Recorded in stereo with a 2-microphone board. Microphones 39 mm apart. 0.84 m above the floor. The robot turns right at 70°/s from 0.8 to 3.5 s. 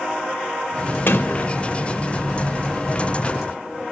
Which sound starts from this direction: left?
A sliding door, at 1.1 s.